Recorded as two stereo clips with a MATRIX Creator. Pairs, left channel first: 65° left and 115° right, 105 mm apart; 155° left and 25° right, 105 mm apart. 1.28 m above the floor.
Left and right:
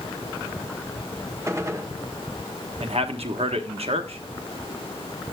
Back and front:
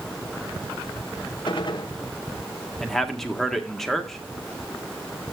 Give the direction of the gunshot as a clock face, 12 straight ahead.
6 o'clock.